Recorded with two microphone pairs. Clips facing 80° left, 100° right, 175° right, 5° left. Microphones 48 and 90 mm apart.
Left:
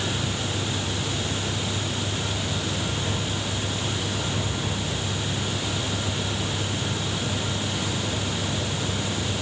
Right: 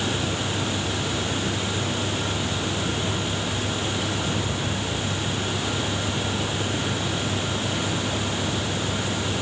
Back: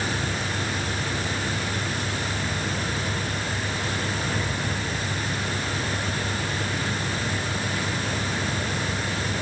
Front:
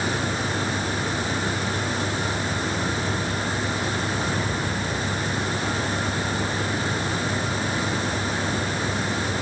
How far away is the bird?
I don't hear a bird.